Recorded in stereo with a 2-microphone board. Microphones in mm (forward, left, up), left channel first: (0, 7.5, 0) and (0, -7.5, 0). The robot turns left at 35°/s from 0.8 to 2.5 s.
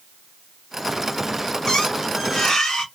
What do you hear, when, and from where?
1.7 s a squeak: 55° left (ahead or behind), 1.4 m; by 2.9 s 75° left (ahead or behind), 1.4 m